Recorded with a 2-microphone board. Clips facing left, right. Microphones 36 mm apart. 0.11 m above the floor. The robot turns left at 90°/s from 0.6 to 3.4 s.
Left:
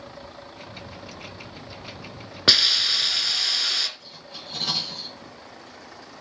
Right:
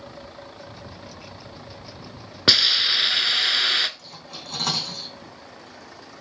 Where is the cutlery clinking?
75° right (ahead or behind), 4 m.